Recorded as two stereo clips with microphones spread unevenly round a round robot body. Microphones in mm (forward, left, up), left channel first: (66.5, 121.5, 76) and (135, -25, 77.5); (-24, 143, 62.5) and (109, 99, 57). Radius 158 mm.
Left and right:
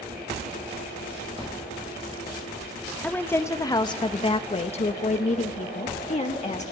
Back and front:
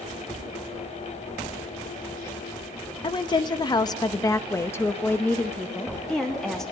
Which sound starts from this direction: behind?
A woman speaking, at 3.0 s.